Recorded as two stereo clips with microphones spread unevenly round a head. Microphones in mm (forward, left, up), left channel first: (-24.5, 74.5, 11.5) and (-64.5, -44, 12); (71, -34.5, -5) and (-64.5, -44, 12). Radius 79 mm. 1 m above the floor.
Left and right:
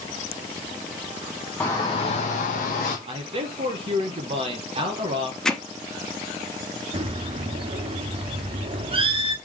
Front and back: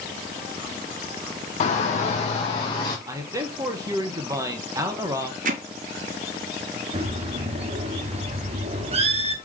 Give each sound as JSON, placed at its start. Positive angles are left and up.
{"t": 1.6, "sound": "a shout", "azimuth_deg": -5, "distance_m": 0.6}
{"t": 3.1, "sound": "a man speaking", "azimuth_deg": -110, "distance_m": 1.0}
{"t": 5.5, "sound": "hammering", "azimuth_deg": 155, "distance_m": 0.6}
{"t": 6.9, "sound": "a bird", "azimuth_deg": -150, "distance_m": 0.5}